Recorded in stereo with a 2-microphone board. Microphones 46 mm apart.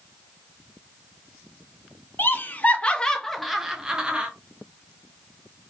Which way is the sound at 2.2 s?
45° left (ahead or behind).